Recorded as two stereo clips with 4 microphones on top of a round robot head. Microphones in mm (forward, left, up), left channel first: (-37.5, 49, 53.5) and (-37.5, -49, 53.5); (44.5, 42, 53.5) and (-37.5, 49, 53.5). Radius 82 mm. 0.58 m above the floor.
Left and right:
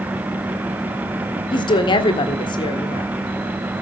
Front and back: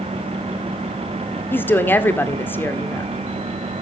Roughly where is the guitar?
I don't hear a guitar.